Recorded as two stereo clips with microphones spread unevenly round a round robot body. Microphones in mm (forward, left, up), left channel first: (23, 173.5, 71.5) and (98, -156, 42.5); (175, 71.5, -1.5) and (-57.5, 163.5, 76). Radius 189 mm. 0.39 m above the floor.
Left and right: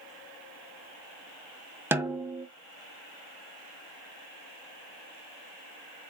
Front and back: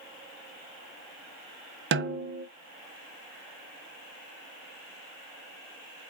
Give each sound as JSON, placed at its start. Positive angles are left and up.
{"t": 1.9, "sound": "a snare drum", "azimuth_deg": -150, "distance_m": 0.6}